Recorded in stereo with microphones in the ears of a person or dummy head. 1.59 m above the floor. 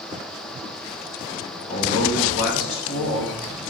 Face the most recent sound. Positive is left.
turn(degrees=70)  # may be behind; listen again after turning